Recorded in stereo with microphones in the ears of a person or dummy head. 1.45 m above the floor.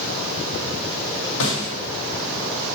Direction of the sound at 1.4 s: 65° left (ahead or behind).